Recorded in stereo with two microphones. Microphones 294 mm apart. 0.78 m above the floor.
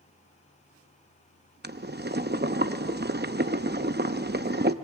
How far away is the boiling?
About 0.7 m.